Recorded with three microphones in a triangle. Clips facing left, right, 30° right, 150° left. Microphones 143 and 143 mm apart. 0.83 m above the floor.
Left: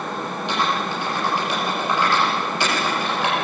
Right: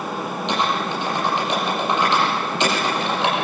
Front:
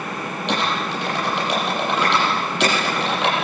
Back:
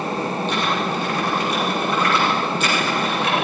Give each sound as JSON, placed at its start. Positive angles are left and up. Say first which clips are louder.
{"t": 0.5, "sound": "typing on a keyboard", "louder": "right 1 dB, back 1 dB", "azimuth_deg": -20, "distance_m": 8.0}